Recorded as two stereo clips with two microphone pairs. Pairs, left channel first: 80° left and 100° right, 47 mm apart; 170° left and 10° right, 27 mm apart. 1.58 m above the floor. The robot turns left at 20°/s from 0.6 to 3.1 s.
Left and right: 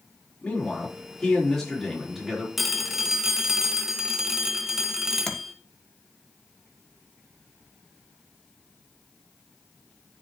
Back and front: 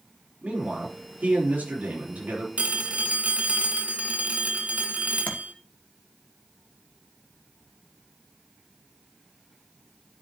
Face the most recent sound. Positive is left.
turn(degrees=170)